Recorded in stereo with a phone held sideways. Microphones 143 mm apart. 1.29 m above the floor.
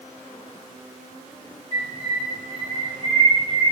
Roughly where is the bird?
Right.